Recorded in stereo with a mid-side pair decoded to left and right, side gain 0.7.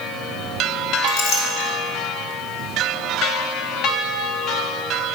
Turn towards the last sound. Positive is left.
turn(degrees=60)